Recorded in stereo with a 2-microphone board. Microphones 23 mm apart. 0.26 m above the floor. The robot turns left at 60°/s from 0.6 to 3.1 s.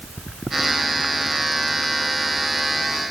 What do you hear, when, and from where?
Only background noise.